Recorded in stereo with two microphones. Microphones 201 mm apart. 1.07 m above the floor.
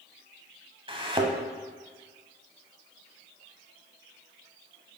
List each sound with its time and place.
0.9 s a thud: 25° right (ahead or behind), 1.4 m